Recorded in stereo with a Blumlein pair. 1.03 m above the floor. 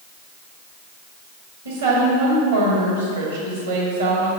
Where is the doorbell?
I don't hear a doorbell.